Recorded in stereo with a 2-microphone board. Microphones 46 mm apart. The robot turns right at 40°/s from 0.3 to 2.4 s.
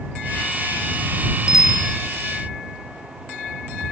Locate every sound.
1.5 s a bicycle bell: 15° right (ahead or behind); by 2.0 s 5° left (ahead or behind)